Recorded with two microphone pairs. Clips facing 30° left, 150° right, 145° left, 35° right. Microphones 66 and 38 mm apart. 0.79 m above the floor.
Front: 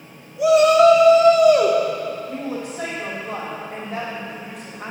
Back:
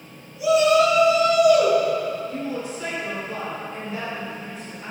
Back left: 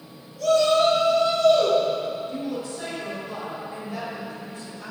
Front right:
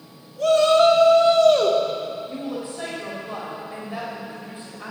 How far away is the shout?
About 1.7 m.